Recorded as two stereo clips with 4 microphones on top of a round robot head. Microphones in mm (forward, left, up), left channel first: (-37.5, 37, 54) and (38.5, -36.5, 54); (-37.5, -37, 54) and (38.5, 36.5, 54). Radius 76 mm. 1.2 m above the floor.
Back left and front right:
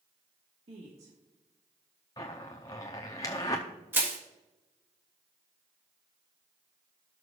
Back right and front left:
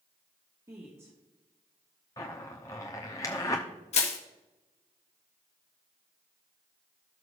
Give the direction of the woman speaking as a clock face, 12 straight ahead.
1 o'clock.